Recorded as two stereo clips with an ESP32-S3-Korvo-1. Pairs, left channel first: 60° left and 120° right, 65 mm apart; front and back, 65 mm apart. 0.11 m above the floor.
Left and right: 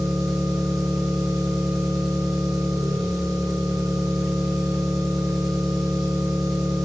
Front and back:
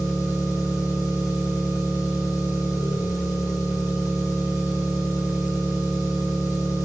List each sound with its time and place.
0.0 s an engine running: 30° right, 2.0 m